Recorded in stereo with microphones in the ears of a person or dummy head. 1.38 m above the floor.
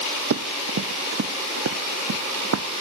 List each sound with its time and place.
0.3 s running footsteps: 65° right (ahead or behind); by 2.8 s 80° right